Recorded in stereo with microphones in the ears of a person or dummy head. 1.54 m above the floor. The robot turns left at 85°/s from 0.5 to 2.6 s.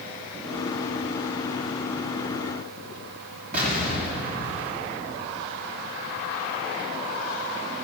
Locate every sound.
3.5 s an explosion: 40° right (ahead or behind), 3 m